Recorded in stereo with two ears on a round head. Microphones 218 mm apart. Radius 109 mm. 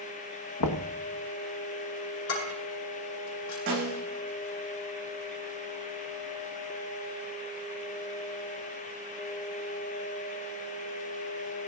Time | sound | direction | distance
0.6 | knocking | 85° left | 1.2 m
2.3 | dishes clattering | 60° left (ahead or behind) | 7.5 m
3.7 | a snare drum | 40° right (ahead or behind) | 9.5 m